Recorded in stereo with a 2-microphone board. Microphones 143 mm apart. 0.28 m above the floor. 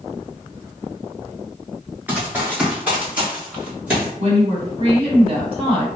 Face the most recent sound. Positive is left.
turn(degrees=-45)  # may be behind; listen again after turning